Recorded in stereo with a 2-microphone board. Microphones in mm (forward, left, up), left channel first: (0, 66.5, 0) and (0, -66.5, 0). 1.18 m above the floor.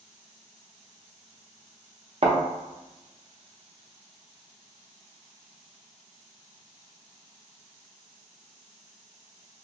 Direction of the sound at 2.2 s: 50° right (ahead or behind).